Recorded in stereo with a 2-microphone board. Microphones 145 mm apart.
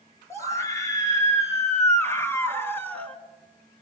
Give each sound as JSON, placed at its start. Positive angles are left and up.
{"t": 0.3, "sound": "a scream", "side_deg": 20, "distance_m": 6.5}